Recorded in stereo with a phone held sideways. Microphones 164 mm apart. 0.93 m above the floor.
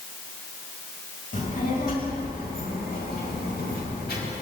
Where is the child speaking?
55° left (ahead or behind), 4 m; by 4.3 s 85° left, 4.5 m.